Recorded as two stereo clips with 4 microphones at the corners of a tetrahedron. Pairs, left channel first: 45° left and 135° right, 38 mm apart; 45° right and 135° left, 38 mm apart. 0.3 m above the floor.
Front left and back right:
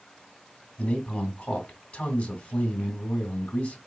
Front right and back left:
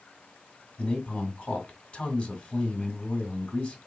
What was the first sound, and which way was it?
A man speaking, 10° left.